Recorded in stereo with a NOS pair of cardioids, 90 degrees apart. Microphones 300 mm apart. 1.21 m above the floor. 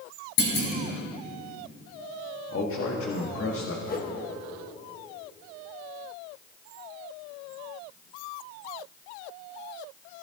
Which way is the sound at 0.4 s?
65° left.